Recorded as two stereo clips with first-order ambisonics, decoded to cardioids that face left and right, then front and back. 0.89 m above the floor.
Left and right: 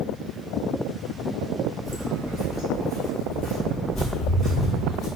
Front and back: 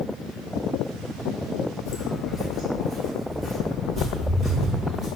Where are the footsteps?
5° right, 1.0 m; by 5.1 s 125° left, 1.6 m.